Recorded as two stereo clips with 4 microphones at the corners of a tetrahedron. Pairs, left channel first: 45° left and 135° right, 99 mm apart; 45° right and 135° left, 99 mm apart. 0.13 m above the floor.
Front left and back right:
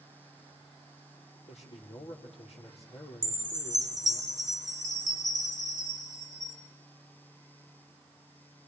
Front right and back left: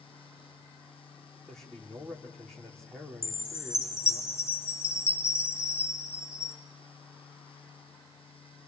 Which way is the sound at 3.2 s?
95° right.